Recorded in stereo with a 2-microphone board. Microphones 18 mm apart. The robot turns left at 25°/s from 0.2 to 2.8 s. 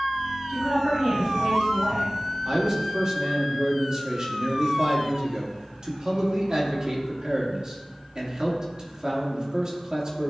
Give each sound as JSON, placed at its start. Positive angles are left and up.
{"t": 0.5, "sound": "a woman speaking", "azimuth_deg": -65, "distance_m": 2.5}
{"t": 2.5, "sound": "a man speaking", "side_deg": -30, "distance_m": 1.7}